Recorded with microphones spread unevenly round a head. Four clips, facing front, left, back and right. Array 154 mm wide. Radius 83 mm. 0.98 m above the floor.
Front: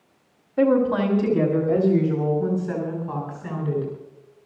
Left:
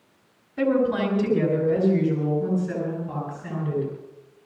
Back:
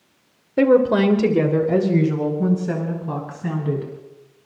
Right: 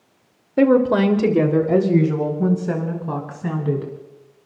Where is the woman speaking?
135° right, 2.5 m; by 3.9 s 110° right, 6 m.